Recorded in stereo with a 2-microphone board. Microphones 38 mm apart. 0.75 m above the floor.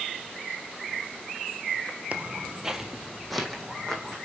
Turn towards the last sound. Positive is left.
turn(degrees=10)  # may be behind; listen again after turning